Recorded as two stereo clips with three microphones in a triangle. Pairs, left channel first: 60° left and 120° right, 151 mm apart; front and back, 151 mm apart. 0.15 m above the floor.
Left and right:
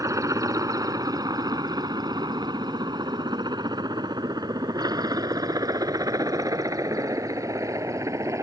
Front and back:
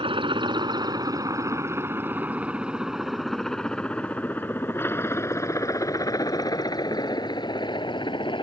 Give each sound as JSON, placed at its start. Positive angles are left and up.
{"t": 0.0, "sound": "a helicopter", "azimuth_deg": -170}